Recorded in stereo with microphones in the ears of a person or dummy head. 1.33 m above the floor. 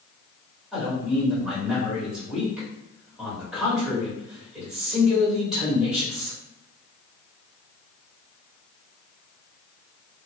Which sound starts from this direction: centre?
A man speaking, at 0.7 s.